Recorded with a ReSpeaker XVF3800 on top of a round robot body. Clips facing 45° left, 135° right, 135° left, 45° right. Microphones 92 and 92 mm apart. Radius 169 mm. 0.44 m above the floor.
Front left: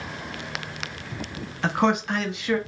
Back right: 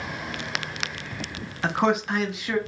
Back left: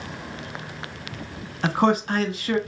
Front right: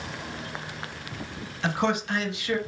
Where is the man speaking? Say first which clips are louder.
Front left 1 dB, back left 5 dB; 140° left, 1.1 m.